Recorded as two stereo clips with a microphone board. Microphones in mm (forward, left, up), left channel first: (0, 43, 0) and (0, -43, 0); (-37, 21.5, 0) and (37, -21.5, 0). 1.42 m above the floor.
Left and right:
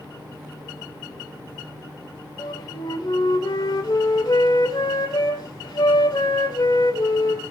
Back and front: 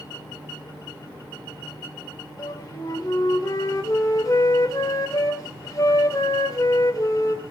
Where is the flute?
110° left, 1.9 m.